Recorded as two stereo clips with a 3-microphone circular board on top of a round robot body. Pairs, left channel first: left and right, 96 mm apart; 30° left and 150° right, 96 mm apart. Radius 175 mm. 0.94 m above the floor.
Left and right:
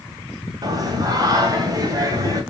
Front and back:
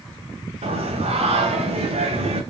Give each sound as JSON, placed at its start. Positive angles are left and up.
{"t": 0.6, "sound": "singing", "azimuth_deg": -140, "distance_m": 2.5}